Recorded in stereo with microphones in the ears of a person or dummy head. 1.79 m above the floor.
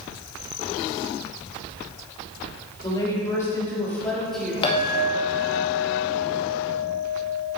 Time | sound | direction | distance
2.8 | a woman speaking | 30° left (ahead or behind) | 3.5 m
4.6 | a clink | 35° left (ahead or behind) | 1.9 m